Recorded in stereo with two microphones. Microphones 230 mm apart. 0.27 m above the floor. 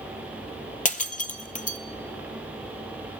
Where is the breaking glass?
35° left (ahead or behind), 0.7 m.